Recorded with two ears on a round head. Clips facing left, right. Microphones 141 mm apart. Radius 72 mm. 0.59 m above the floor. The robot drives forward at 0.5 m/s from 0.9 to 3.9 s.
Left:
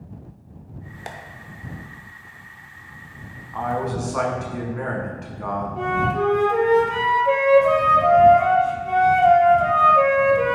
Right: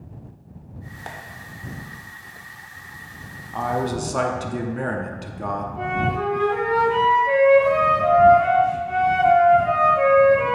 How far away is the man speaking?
About 0.9 m.